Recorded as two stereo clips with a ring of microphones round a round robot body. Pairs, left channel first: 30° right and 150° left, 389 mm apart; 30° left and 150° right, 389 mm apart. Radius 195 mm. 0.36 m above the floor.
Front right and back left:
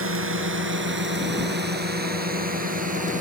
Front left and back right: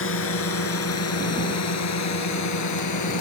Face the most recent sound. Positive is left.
turn(degrees=80)